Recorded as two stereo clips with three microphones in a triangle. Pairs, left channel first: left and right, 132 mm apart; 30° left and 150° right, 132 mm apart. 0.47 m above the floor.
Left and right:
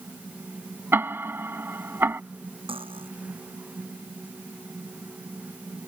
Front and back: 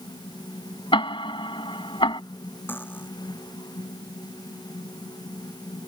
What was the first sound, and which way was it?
Ticking, 20° right.